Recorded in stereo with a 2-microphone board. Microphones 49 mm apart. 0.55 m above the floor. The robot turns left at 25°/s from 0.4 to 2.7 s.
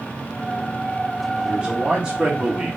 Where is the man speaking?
20° right (ahead or behind), 1.3 m.